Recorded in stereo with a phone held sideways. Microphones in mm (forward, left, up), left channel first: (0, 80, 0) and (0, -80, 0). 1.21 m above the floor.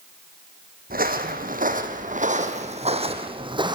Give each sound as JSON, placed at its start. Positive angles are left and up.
{"t": 0.9, "sound": "footsteps", "side_deg": -60, "distance_m": 2.5}